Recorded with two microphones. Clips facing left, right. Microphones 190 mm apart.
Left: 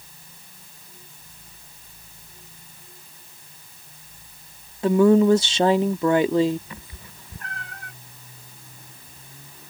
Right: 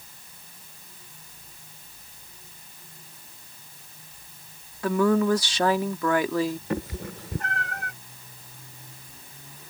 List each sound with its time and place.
4.8 s a woman speaking: 25° left (ahead or behind)
6.7 s a cat meowing: 85° right